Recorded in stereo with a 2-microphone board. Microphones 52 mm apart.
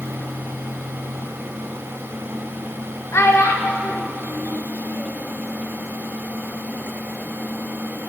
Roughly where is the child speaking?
Left.